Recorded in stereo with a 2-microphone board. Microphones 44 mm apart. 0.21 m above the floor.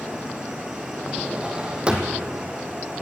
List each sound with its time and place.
0.0 s an insect: 10° right (ahead or behind), 3.5 m
1.1 s a drawer: 25° right (ahead or behind), 3 m